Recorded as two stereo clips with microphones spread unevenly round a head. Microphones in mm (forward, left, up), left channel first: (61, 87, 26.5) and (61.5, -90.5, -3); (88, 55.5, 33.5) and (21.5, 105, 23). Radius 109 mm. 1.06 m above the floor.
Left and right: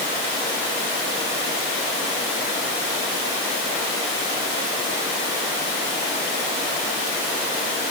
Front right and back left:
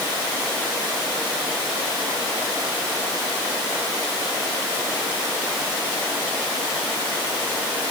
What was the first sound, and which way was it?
Only background noise.